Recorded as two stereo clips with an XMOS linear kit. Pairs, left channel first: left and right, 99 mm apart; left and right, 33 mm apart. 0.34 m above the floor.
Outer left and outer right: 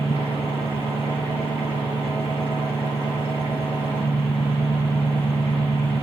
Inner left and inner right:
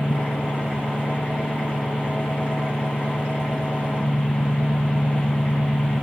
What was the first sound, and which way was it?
An engine running, 75° left (ahead or behind).